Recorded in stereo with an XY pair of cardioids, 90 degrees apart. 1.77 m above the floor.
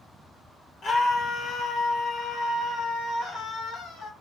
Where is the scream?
70° left, 2.5 m; by 4.1 s 75° left, 4.5 m.